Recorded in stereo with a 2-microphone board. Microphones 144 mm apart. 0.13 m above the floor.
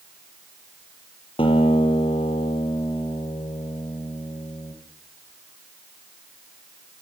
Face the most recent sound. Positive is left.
turn(degrees=40)  # may be behind; listen again after turning